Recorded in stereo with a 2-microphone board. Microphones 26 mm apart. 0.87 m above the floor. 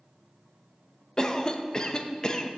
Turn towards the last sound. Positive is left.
turn(degrees=25)  # may be behind; listen again after turning